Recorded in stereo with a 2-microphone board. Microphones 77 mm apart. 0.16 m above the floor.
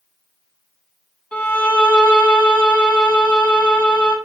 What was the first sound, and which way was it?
A violin, 20° left (ahead or behind).